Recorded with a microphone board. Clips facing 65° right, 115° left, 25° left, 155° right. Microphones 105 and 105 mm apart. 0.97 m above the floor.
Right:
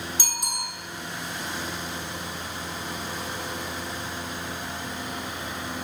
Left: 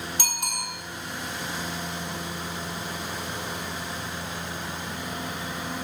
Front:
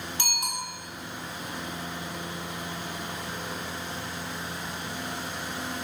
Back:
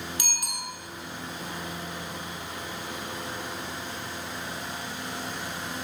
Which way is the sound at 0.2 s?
85° left.